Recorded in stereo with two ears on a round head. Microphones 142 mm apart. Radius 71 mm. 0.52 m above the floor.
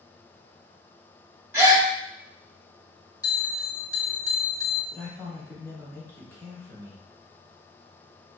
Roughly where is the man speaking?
Centre.